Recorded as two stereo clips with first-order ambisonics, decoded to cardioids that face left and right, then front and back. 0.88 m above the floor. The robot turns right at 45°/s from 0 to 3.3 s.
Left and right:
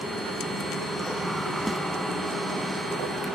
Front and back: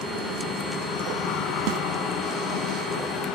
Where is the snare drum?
Straight behind; by 1.8 s 170° right.